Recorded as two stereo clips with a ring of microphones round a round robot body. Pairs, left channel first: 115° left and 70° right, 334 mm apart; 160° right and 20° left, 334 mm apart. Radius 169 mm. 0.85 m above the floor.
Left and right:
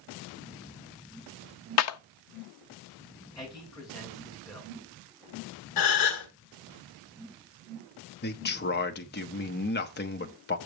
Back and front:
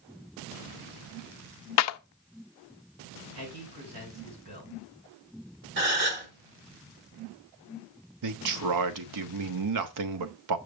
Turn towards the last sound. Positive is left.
turn(degrees=55)